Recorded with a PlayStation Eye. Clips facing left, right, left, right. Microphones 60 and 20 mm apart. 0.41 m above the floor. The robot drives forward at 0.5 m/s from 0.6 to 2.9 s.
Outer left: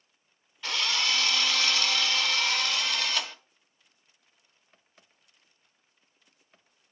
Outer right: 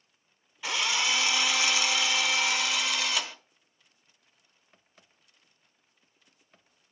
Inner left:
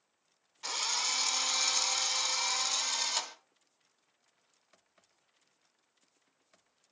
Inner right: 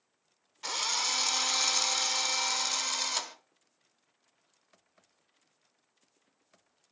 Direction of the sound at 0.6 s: 10° right (ahead or behind).